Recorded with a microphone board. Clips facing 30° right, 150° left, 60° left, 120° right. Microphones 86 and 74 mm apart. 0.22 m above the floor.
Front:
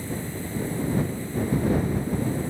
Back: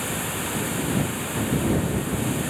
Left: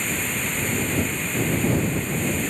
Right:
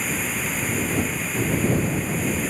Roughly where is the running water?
Behind left.